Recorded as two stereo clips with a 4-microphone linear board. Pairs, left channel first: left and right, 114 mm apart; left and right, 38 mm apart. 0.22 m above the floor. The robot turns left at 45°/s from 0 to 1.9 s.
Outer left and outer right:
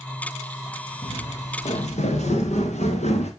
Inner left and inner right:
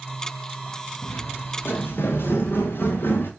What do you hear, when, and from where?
1.0 s footsteps: 75° left (ahead or behind), 3 m; by 3.3 s 70° left (ahead or behind), 3 m